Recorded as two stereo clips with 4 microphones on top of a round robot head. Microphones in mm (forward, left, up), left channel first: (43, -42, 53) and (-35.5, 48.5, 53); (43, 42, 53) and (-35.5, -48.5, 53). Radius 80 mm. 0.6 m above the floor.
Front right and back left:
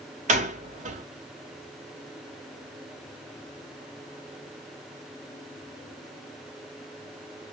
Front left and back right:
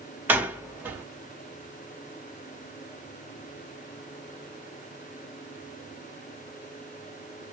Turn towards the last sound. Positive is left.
turn(degrees=155)